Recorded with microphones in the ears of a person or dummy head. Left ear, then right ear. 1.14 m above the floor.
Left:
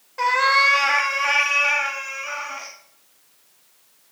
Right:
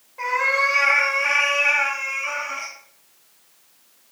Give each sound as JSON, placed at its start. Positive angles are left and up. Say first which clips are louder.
{"t": 0.2, "sound": "a cat meowing", "louder": "left 3 dB", "side_deg": 50, "distance_m": 1.7}